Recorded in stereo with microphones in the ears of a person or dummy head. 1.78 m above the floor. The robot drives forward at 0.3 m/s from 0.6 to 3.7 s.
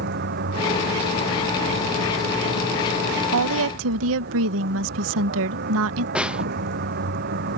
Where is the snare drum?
5° right (ahead or behind).